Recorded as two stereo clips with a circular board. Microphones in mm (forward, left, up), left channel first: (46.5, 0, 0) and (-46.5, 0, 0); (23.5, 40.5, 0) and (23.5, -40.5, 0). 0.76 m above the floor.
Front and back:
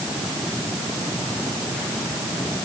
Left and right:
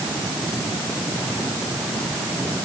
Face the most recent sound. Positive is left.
No sound to turn to.